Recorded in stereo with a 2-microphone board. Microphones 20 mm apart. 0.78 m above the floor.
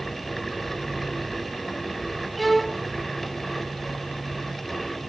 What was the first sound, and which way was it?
A violin, centre (ahead or behind).